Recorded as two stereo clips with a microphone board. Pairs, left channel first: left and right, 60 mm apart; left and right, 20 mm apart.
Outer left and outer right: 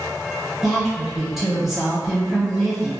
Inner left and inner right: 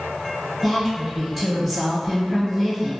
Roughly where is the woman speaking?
Centre.